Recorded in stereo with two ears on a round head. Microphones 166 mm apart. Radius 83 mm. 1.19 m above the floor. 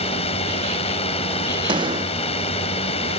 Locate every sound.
0.0 s a drone: 30° left (ahead or behind)
1.7 s a gunshot: 25° right (ahead or behind)